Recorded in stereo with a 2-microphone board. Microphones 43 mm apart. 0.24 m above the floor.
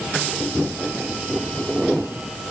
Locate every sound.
Only background noise.